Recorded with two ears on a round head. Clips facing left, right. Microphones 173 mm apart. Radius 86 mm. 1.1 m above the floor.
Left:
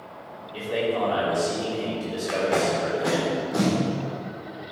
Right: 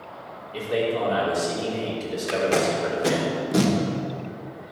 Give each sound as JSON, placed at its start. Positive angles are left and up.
{"t": 0.5, "sound": "a man speaking", "side_deg": -20, "distance_m": 3.5}
{"t": 2.3, "sound": "tape being pulled", "side_deg": -35, "distance_m": 1.5}